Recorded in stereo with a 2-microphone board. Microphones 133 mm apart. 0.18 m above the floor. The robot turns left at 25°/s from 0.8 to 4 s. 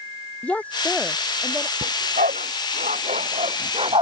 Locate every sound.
0.4 s a woman speaking: 10° left (ahead or behind); by 1.7 s 15° right (ahead or behind)
1.8 s a dog barking: 80° right; by 4.0 s 40° right (ahead or behind)